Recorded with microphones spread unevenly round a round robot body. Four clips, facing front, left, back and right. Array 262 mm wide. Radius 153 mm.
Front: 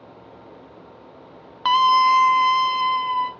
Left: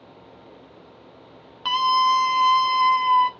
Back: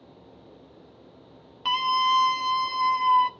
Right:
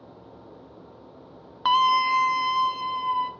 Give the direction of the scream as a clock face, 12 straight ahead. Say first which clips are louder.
Left 1 dB, front 8 dB; 1 o'clock.